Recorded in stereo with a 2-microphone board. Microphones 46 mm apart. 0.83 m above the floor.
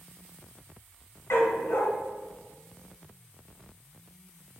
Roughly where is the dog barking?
Left.